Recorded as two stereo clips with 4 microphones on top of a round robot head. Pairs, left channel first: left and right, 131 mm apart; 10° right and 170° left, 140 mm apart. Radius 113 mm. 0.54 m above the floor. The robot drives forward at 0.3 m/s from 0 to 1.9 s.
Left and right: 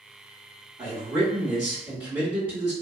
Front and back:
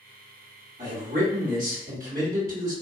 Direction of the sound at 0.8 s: 150° right.